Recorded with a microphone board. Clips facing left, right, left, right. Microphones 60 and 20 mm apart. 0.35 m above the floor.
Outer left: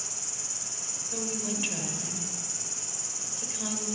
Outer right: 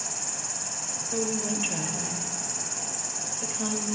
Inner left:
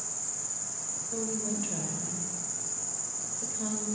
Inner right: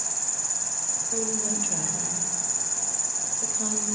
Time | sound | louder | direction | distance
0.0 | an insect | outer right 7 dB, inner right 7 dB | 65° right (ahead or behind) | 1.0 m
1.1 | a woman speaking | outer right 5 dB, inner right 2 dB | 20° right (ahead or behind) | 1.5 m